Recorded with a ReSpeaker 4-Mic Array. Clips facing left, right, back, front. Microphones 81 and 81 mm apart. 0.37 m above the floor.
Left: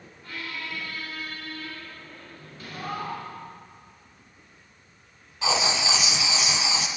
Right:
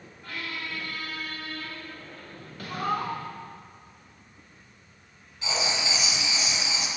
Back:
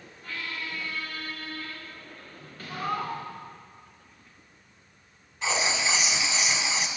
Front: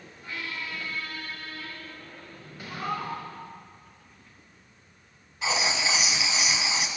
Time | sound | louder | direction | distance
0.2 | a squeak | even, even | 75° right | 1.2 m
2.7 | a cat meowing | right 4 dB, back 1 dB | 95° right | 0.8 m
5.4 | writing | left 5 dB, even | 85° left | 0.5 m